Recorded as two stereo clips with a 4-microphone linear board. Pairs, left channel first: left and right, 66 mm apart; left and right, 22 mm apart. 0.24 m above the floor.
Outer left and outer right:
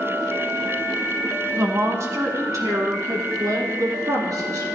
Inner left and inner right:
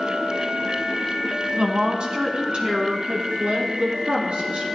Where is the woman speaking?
45° right (ahead or behind), 1.6 m; by 4.6 s 65° right (ahead or behind), 4 m.